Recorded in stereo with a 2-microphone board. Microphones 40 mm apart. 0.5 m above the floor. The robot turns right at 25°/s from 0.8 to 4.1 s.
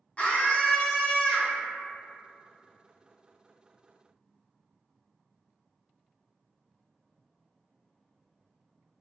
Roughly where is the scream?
Left.